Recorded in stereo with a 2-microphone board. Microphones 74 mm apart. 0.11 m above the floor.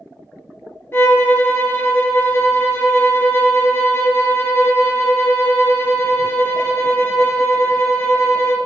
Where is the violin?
35° left (ahead or behind), 0.9 m.